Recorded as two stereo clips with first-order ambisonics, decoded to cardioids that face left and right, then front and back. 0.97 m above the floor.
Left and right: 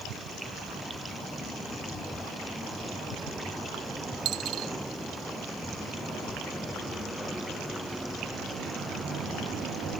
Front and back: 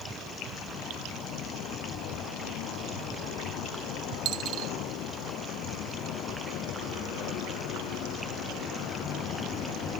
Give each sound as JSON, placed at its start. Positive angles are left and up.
{"t": 4.2, "sound": "a dropped coin", "azimuth_deg": -135}